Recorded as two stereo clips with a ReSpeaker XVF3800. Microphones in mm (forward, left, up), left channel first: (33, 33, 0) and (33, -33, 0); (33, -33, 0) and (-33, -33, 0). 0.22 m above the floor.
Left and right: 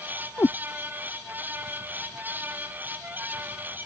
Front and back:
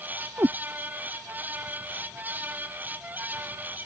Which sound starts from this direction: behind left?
A cat meowing, at 0.4 s.